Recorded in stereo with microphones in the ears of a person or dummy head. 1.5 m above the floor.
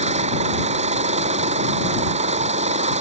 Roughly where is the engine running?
Right.